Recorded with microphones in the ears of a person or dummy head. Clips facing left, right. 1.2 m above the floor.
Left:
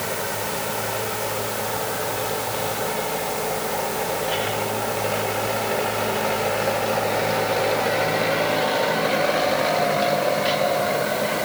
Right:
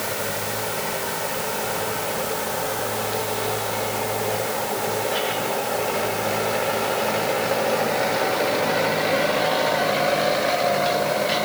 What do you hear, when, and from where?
Only background noise.